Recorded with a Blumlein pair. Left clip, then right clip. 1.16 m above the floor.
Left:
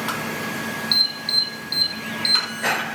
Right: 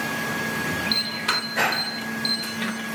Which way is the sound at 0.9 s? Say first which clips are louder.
Left 7 dB; 65° left.